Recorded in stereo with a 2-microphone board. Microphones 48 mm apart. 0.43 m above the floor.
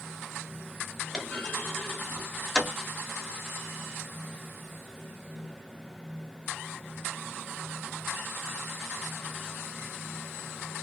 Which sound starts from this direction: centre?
A clunk, at 1.1 s.